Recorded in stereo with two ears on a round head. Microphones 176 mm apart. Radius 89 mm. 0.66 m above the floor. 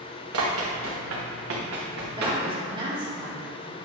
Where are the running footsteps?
80° right, 3 m; by 2.4 s 50° right (ahead or behind), 3.5 m.